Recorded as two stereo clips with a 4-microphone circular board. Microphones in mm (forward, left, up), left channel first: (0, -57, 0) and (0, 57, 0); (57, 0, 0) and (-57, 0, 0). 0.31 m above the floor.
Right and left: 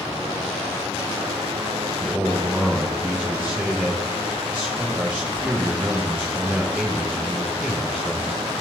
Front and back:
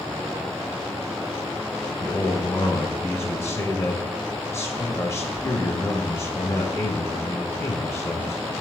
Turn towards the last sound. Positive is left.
turn(degrees=35)